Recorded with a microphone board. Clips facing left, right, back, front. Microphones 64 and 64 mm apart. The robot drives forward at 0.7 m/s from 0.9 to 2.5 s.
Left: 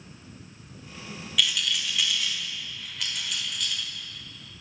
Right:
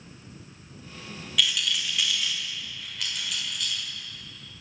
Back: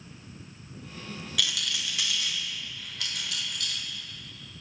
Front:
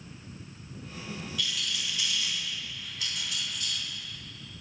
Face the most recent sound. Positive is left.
turn(degrees=180)